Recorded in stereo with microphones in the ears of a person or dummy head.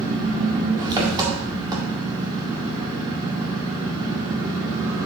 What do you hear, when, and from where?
0.0 s an engine running: 25° right (ahead or behind), 1.9 m